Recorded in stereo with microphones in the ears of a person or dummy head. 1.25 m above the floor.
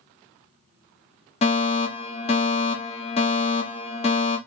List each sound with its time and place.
1.4 s a fire alarm: 30° left (ahead or behind), 1.4 m